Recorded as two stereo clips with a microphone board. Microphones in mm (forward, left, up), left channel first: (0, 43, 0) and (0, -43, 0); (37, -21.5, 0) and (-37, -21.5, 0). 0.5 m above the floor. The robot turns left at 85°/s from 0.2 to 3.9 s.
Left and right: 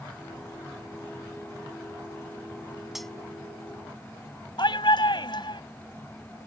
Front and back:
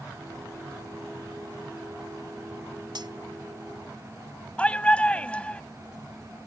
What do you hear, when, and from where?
3.0 s cutlery clinking: 175° right; by 3.1 s 170° left
4.6 s a shout: 70° left